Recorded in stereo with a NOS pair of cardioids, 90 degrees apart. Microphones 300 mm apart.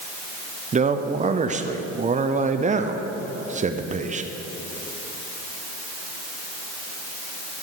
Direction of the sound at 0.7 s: 25° right.